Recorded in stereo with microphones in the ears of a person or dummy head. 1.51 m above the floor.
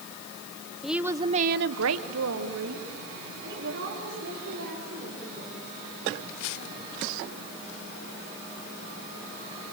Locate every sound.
0.8 s a woman speaking: centre (ahead or behind), 1.3 m; by 5.7 s 50° right (ahead or behind), 6.5 m